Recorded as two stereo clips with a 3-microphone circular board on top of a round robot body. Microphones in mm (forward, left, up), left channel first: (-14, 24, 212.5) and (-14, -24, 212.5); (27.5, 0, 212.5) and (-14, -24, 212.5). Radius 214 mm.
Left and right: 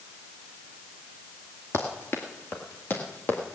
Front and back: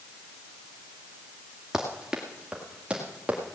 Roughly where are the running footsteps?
Behind left.